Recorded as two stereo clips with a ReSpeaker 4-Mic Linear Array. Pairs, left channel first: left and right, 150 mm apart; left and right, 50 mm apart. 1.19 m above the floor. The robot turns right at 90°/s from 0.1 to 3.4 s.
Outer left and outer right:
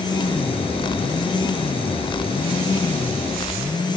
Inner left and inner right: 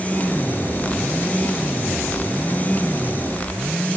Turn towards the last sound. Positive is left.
No sound to turn to.